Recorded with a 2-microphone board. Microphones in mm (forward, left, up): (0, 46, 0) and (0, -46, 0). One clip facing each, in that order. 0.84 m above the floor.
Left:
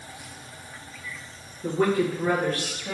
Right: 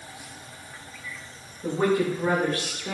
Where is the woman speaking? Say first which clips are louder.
Even; 5° right (ahead or behind), 0.8 m; by 2.9 s 30° right (ahead or behind), 0.8 m.